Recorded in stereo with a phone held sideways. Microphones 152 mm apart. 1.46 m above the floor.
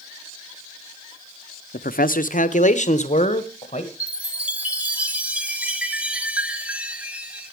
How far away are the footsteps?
I don't hear footsteps.